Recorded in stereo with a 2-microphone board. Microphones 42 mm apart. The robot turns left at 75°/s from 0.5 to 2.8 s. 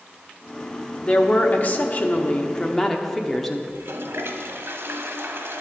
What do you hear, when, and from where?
1.0 s a woman speaking: 145° left, 0.8 m; by 3.6 s 10° left, 0.8 m
3.7 s a toilet flushing: 70° right (ahead or behind), 0.9 m